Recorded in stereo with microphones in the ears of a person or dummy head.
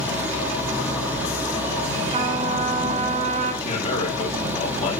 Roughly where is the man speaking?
Left.